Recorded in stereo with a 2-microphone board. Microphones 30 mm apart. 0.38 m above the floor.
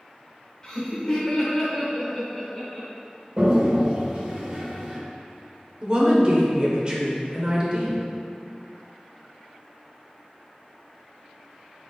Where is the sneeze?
I don't hear a sneeze.